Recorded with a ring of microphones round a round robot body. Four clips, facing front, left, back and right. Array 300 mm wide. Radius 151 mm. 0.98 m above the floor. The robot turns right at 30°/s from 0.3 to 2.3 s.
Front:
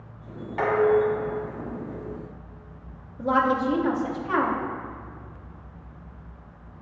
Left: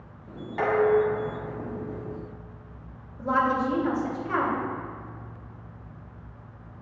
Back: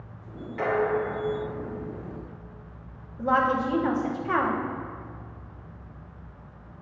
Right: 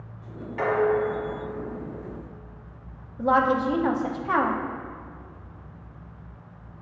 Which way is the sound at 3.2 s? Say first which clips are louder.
Right 3 dB, front 1 dB; 105° right.